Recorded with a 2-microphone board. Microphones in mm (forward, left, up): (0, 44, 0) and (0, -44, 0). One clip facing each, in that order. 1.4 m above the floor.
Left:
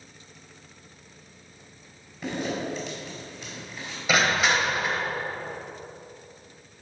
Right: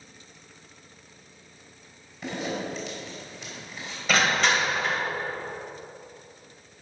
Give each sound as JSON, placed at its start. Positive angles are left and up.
{"t": 2.2, "sound": "a zipper", "side_deg": 5, "distance_m": 4.0}
{"t": 4.1, "sound": "crushing", "side_deg": 10, "distance_m": 2.0}